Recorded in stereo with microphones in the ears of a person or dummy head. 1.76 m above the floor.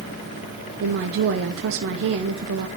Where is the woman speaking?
65° right (ahead or behind), 0.9 m.